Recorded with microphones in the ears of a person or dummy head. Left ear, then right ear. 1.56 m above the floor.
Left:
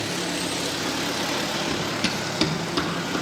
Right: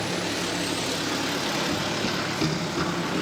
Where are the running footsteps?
35° left (ahead or behind), 2 m; by 3.2 s 50° left (ahead or behind), 3.5 m.